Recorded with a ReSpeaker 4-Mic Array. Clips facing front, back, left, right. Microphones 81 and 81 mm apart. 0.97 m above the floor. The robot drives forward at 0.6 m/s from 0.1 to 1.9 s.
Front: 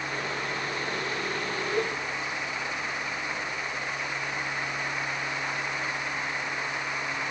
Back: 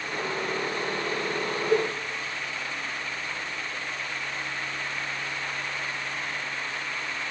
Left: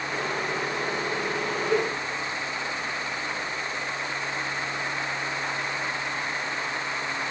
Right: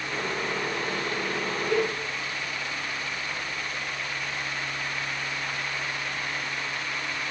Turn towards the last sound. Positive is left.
turn(degrees=175)